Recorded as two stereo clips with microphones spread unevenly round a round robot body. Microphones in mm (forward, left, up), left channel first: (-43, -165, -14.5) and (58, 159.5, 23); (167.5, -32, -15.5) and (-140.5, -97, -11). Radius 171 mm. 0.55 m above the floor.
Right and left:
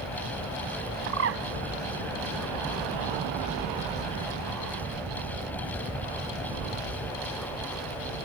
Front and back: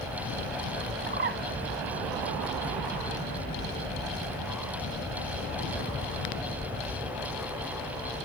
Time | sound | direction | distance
1.1 | a bird | 130° left | 0.6 m